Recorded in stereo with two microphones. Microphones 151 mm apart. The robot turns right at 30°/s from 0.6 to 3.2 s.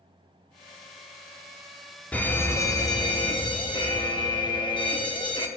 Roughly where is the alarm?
Ahead.